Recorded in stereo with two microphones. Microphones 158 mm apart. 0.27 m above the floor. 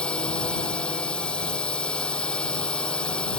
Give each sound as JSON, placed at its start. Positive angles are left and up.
{"t": 0.0, "sound": "a drone", "side_deg": 5}